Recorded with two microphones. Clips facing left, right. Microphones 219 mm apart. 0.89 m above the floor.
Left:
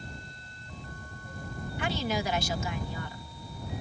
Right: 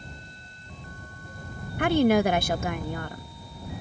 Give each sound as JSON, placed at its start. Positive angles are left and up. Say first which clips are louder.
{"t": 1.8, "sound": "a woman speaking", "louder": "right 12 dB", "side_deg": -55}